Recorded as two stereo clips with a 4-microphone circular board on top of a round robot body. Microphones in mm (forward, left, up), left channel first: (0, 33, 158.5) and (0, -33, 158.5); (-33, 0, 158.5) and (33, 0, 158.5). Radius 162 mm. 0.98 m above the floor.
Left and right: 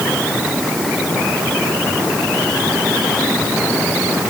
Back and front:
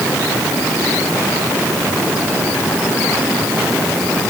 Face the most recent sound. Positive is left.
No sound to turn to.